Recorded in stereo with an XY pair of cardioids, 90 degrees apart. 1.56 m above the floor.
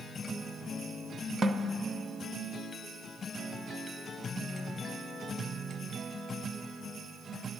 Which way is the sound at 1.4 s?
50° right.